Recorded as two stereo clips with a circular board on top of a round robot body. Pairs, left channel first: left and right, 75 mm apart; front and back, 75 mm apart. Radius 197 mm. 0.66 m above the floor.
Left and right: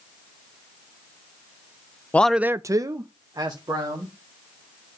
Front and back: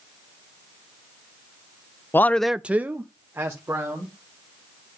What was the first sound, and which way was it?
A man speaking, 35° left.